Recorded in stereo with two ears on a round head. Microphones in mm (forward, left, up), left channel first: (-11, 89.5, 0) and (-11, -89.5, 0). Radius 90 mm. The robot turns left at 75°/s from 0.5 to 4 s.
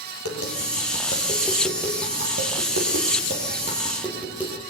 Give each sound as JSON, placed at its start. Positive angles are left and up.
{"t": 0.2, "sound": "tapping", "side_deg": 90, "distance_m": 7.0}